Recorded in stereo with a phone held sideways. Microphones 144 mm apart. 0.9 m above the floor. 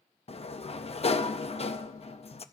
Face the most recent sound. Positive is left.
turn(degrees=45)  # may be behind; listen again after turning